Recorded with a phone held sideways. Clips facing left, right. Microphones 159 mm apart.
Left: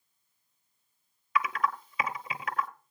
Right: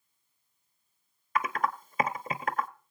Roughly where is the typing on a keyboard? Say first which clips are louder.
Even; right.